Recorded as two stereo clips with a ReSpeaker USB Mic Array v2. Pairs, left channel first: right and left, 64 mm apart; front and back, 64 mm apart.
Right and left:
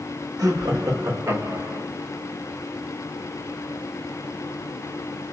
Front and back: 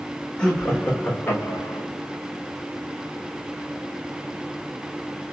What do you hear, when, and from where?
0.4 s laughter: 70° left, 1.3 m; by 1.9 s 35° left, 0.9 m